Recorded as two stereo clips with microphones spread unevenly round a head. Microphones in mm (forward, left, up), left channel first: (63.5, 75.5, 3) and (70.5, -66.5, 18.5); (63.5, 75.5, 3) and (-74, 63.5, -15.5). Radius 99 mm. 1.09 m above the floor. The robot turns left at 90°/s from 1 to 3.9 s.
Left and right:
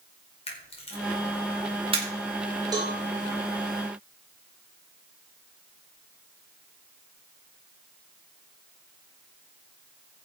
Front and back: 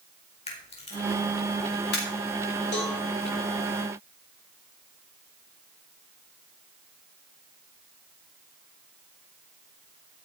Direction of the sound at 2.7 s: 25° right.